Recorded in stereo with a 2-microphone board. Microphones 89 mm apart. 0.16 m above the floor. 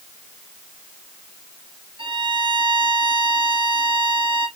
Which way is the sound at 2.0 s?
65° right (ahead or behind).